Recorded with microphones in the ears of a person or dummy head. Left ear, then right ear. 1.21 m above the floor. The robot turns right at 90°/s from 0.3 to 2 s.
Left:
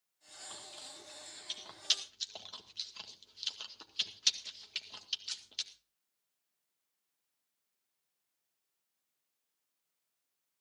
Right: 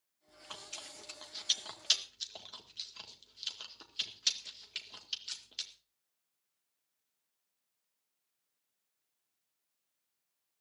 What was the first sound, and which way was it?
Chewing, 30° right (ahead or behind).